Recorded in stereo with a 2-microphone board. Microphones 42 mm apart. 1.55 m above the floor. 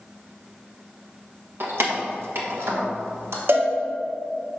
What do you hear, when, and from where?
1.6 s keys jangling: 60° right (ahead or behind), 1.3 m; by 3.4 s 75° right (ahead or behind), 1.9 m
3.5 s a cowbell: 65° right (ahead or behind), 1.5 m